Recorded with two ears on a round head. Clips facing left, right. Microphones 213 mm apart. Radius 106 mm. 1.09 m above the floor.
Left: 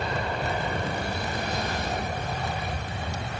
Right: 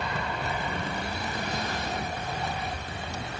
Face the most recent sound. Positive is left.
turn(degrees=45)  # may be behind; listen again after turning